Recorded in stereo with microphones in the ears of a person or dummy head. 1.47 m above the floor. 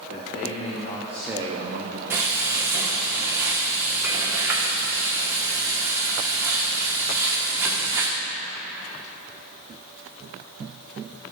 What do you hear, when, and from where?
0.1 s a man speaking: 60° left (ahead or behind), 1.6 m; by 2.0 s 60° right (ahead or behind), 1.0 m
2.1 s frying: 10° right (ahead or behind), 1.1 m